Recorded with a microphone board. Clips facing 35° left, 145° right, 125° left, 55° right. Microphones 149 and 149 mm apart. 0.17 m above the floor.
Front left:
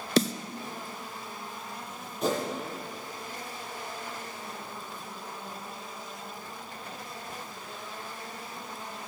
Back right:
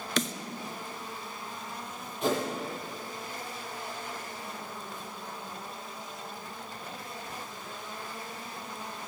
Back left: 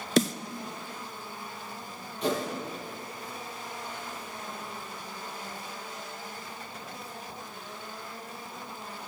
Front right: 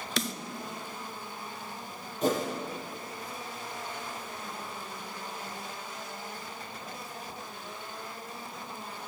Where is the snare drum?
80° left, 0.8 m.